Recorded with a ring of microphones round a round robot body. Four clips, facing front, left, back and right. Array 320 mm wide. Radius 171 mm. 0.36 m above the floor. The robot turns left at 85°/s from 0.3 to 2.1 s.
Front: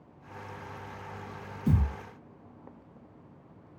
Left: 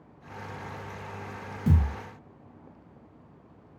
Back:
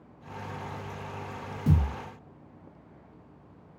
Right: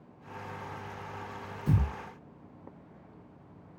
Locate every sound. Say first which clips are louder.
1.7 s a thud: left 3 dB, back 1 dB; 125° left, 1.0 m; by 1.9 s 105° left, 1.0 m